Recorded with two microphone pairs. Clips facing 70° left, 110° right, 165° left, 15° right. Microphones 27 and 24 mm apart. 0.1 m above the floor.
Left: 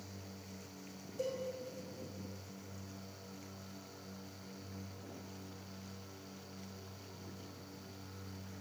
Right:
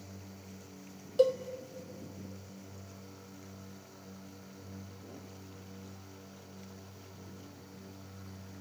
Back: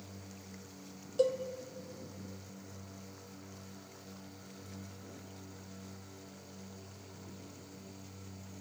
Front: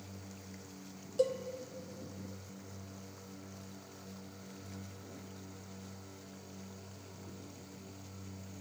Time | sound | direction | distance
1.2 | a cowbell | 115° right | 0.7 m